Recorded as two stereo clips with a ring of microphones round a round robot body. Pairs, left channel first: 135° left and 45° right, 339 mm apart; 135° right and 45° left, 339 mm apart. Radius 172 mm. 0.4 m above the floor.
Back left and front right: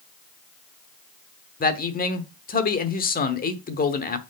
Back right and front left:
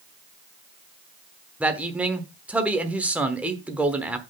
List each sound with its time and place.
1.6 s a man speaking: 125° left, 1.0 m